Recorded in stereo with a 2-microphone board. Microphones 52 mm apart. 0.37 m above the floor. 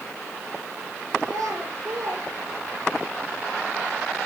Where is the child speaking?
80° right, 4.5 m; by 3.0 s 60° right (ahead or behind), 4 m.